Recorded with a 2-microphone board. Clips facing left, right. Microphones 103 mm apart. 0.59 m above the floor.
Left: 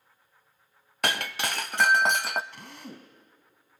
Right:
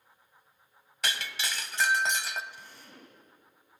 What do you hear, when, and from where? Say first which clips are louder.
1.0 s breaking glass: left 6 dB; 55° left (ahead or behind), 0.6 m
2.5 s a drill: left 7 dB; 75° left (ahead or behind), 3 m